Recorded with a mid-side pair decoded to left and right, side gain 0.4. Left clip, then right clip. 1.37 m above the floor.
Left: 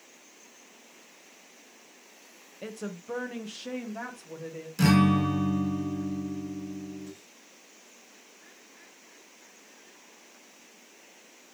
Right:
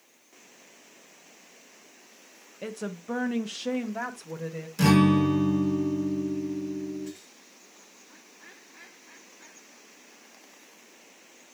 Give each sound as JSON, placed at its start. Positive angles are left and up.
{"t": 2.6, "sound": "a woman speaking", "azimuth_deg": -20, "distance_m": 1.3}
{"t": 4.8, "sound": "a guitar", "azimuth_deg": 0, "distance_m": 5.5}